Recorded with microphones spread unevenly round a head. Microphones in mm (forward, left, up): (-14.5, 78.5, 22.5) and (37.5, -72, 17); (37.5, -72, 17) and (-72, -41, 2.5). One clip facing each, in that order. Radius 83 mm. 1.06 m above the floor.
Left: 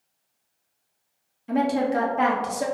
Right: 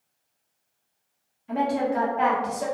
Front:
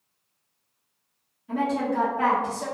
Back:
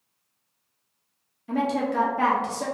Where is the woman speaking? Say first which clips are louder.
Left 2 dB, back 1 dB; 140° left, 0.9 m.